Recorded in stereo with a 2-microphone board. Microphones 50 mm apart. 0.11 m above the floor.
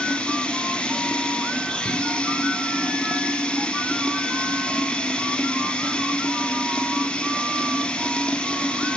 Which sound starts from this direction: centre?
Running water, at 0.0 s.